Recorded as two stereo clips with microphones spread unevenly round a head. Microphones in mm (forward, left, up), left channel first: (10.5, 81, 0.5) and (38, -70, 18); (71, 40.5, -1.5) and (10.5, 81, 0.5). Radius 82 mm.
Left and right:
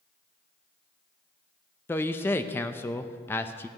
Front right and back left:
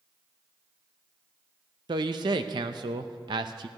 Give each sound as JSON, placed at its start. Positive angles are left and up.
{"t": 1.9, "sound": "a man speaking", "azimuth_deg": 175, "distance_m": 0.6}